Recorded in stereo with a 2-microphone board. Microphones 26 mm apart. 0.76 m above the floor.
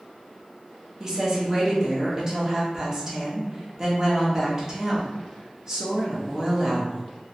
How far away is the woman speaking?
About 0.9 m.